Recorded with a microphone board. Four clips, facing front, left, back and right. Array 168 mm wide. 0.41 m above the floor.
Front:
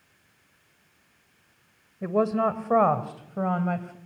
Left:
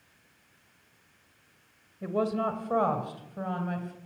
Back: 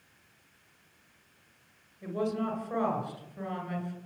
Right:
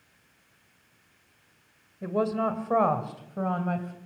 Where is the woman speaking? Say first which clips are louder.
Right 2 dB, front 8 dB; 5° right, 2 m; by 4.0 s 25° right, 2.5 m.